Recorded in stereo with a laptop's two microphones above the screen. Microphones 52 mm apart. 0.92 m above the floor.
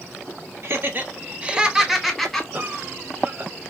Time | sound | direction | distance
0.6 | laughter | 50° right (ahead or behind) | 1.3 m
2.5 | a cough | 40° right (ahead or behind) | 1.1 m